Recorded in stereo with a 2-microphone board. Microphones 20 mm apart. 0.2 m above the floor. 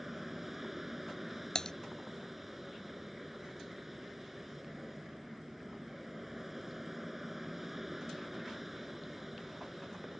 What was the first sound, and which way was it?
An aircraft, 5° right (ahead or behind).